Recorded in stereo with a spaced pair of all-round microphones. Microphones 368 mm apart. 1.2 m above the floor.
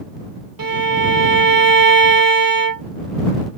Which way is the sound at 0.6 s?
65° right (ahead or behind).